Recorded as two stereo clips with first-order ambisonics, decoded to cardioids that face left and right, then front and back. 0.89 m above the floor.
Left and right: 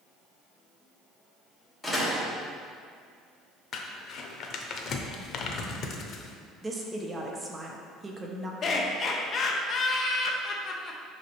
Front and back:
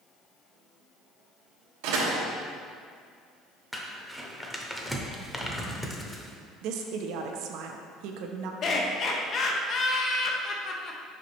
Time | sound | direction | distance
1.8 | a door slam | 175° left | 1.1 m
3.7 | crumpling | 90° left | 0.6 m
6.6 | a woman speaking | 165° right | 0.6 m
8.6 | laughter | 40° left | 0.6 m